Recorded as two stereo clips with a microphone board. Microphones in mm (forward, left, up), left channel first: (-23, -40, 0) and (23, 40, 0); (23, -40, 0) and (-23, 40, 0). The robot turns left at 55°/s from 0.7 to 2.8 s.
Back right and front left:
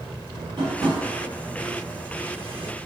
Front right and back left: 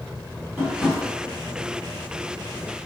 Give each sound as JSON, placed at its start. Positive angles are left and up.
{"t": 0.6, "sound": "tapping", "azimuth_deg": 45, "distance_m": 1.6}